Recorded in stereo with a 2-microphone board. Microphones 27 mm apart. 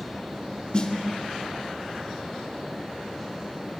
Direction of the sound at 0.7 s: 35° left (ahead or behind).